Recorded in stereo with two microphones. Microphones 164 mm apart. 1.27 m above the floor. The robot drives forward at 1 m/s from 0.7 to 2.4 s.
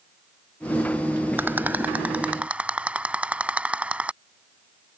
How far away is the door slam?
I don't hear a door slam.